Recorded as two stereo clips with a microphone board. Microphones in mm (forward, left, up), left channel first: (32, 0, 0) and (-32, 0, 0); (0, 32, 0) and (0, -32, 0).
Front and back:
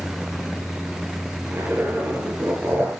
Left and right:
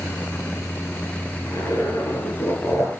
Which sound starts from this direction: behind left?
A zipper, at 1.4 s.